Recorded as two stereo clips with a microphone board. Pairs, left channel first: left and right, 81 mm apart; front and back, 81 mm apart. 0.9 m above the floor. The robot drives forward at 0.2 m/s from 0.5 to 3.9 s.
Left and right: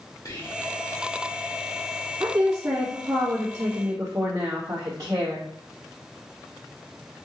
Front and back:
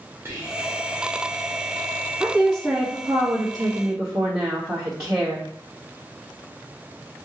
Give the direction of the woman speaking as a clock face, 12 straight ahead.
4 o'clock.